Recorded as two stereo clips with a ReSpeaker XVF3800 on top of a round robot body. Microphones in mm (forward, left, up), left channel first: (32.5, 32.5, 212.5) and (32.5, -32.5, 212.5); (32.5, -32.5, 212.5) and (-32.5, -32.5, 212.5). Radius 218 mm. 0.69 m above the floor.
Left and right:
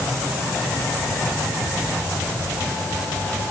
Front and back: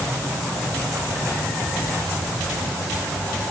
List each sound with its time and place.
Only background noise.